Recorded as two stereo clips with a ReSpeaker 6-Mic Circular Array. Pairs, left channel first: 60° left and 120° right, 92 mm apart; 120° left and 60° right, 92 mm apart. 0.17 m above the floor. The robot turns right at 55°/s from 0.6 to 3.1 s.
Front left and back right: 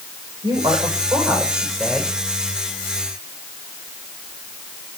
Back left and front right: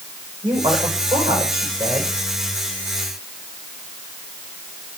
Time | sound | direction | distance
0.4 | a woman speaking | 95° right | 8 m